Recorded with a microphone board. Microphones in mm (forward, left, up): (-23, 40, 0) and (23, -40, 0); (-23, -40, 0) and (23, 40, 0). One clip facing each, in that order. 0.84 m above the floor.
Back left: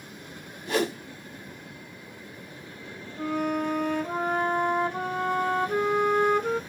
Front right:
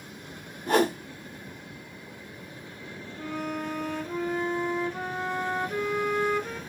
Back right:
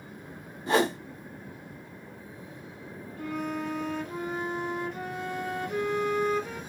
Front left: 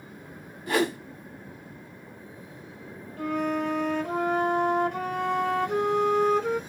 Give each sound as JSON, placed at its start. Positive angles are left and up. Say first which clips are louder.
{"t": 0.7, "sound": "a whoosh", "louder": "front right 4 dB, back right 1 dB", "azimuth_deg": -70, "distance_m": 0.9}
{"t": 3.2, "sound": "a flute", "louder": "back left 6 dB, front left 6 dB", "azimuth_deg": 85, "distance_m": 1.3}